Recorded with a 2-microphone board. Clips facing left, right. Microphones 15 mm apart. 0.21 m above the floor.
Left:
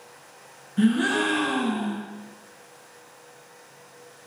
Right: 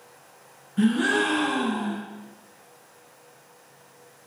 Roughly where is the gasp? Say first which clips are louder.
Even; centre.